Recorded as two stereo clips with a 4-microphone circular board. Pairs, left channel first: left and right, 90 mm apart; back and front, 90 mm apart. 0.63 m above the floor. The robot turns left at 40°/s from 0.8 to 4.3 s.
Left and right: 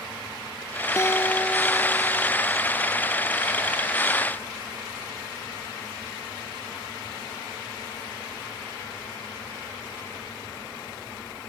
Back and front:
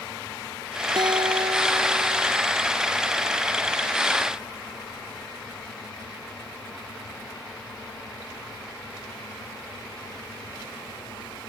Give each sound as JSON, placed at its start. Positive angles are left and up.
{"t": 1.0, "sound": "a guitar", "azimuth_deg": 35}